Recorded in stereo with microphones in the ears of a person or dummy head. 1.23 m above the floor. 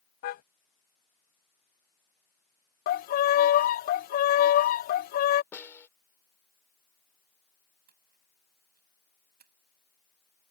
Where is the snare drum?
20° left (ahead or behind).